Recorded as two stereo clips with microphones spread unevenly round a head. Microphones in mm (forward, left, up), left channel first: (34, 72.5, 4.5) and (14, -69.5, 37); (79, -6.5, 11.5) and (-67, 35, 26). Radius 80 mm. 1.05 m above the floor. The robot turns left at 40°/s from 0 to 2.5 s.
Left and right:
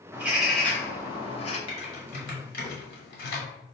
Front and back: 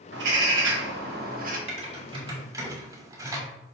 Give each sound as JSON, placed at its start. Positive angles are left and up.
{"t": 0.1, "sound": "a bird", "azimuth_deg": 180, "distance_m": 0.8}
{"t": 1.7, "sound": "typing on a keyboard", "azimuth_deg": 140, "distance_m": 1.1}